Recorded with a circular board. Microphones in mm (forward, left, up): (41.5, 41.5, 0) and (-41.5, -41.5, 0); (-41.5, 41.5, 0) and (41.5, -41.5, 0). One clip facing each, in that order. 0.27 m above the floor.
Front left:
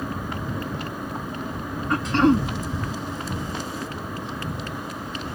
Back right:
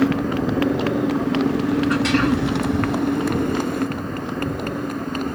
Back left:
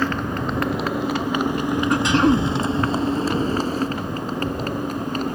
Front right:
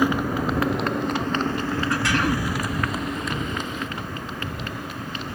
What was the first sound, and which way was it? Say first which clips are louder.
A motorcycle: back right 11 dB, front right 1 dB; 120° right.